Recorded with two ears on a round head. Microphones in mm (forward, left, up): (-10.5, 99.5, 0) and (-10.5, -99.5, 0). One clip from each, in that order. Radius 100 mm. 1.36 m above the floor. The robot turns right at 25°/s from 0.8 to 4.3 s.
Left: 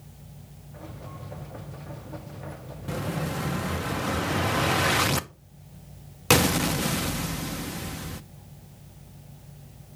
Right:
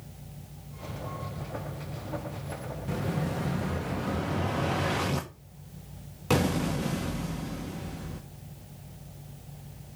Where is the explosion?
20° left, 0.6 m; by 8.2 s 55° left, 0.6 m.